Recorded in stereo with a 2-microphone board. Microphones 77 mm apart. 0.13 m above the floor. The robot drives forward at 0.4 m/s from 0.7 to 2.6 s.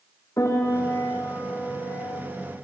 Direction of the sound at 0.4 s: 40° left (ahead or behind).